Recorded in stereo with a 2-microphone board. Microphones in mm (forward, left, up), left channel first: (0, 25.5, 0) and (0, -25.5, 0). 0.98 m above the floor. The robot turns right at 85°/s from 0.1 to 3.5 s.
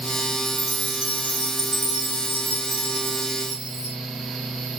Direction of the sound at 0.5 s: 75° left.